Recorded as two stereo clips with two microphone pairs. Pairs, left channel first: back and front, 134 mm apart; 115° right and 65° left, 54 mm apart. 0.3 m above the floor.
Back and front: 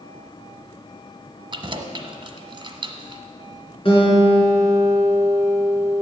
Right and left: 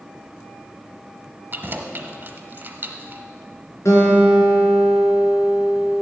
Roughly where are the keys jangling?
Ahead left.